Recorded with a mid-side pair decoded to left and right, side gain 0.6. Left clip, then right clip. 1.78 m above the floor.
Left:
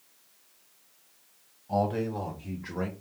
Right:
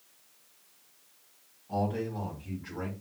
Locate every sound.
1.7 s a man speaking: 35° left, 1.8 m; by 2.9 s 45° left, 1.3 m